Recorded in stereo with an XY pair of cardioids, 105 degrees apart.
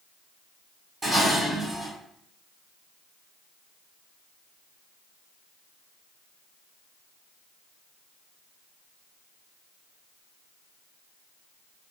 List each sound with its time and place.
1.0 s dishes clattering: 30° right, 1.2 m